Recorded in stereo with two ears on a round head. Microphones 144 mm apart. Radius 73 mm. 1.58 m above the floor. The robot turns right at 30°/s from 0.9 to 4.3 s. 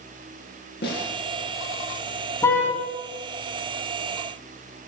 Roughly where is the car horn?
Centre.